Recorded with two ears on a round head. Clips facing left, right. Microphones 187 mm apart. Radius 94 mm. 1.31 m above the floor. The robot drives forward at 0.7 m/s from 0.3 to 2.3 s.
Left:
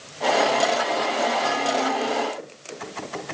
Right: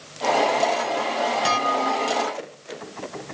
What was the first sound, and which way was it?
Dishes clattering, 80° right.